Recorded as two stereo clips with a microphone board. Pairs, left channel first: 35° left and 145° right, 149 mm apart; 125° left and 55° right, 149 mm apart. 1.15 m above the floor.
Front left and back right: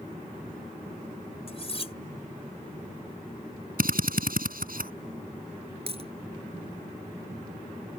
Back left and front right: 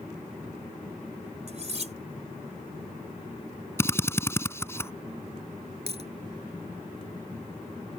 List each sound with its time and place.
1.5 s cutlery clinking: 15° right
3.8 s a drill: 160° right
5.9 s a dropped coin: 100° right